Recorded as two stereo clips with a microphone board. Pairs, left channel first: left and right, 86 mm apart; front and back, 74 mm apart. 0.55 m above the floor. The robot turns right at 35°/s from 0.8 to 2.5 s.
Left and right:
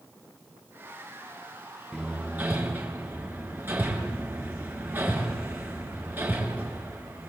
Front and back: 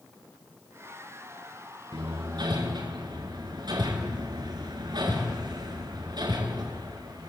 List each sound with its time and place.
1.9 s hammering: 175° right, 4.5 m; by 7.3 s 155° right, 4.5 m